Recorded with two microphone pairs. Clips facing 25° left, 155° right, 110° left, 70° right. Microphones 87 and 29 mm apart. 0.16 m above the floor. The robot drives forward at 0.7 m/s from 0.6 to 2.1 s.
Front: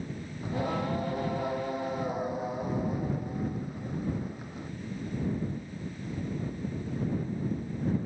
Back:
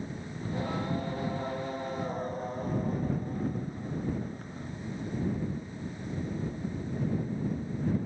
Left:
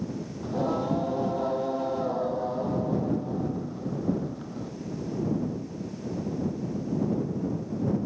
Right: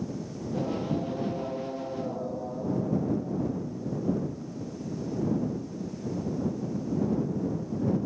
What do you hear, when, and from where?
0.4 s singing: 95° left; by 4.7 s 105° left